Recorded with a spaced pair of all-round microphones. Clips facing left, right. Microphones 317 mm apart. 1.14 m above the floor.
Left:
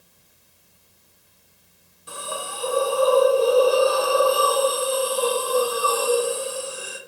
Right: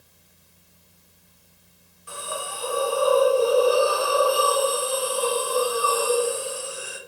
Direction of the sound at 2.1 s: 50° left (ahead or behind).